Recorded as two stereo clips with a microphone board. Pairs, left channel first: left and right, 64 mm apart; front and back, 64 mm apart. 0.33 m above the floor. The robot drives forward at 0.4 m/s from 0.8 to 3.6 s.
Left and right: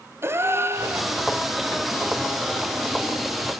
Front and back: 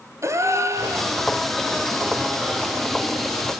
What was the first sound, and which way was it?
A gasp, 140° right.